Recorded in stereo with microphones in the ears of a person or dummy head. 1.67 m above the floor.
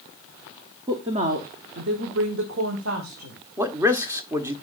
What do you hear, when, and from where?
0.9 s a woman speaking: 20° right (ahead or behind), 0.8 m; by 3.4 s 80° right, 1.8 m
3.6 s a man speaking: 20° right (ahead or behind), 0.9 m